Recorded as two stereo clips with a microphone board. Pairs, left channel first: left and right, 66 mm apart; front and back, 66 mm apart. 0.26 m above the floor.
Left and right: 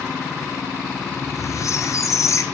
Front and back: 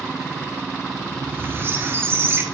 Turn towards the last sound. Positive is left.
turn(degrees=125)